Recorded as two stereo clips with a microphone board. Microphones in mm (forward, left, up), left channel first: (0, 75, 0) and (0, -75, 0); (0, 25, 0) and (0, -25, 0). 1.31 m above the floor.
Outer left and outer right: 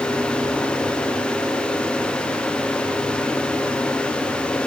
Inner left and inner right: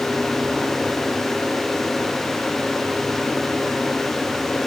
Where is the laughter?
I don't hear laughter.